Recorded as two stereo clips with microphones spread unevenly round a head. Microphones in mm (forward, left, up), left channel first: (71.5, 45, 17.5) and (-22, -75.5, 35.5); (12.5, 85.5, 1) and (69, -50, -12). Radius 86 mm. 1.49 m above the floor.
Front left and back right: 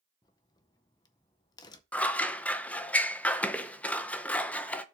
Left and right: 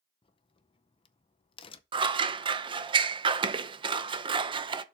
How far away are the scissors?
About 0.6 m.